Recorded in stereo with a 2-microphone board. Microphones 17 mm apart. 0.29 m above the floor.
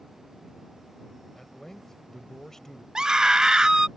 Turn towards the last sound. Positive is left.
turn(degrees=-45)  # may be behind; listen again after turning